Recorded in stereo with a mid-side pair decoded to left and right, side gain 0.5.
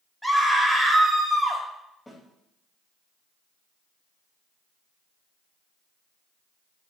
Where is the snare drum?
5° left, 4 m.